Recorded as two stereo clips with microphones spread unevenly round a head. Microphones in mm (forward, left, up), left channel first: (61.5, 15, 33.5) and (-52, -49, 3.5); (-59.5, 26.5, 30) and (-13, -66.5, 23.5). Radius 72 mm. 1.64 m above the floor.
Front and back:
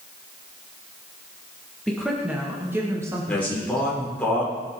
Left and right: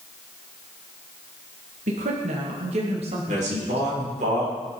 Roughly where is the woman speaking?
Ahead right.